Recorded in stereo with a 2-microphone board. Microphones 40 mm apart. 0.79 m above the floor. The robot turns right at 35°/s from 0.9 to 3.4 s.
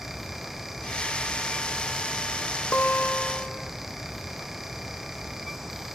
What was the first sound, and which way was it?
A guitar, 65° left (ahead or behind).